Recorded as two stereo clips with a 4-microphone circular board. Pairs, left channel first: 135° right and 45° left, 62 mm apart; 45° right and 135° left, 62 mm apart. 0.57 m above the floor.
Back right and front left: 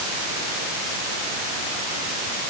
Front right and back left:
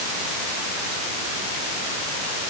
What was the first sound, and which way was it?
Only background noise.